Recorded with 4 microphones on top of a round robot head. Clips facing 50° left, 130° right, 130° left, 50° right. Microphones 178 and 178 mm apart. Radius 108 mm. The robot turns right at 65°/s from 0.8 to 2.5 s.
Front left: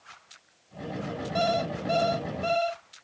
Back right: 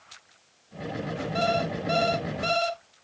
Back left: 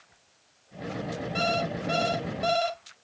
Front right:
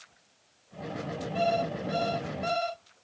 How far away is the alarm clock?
About 2.5 m.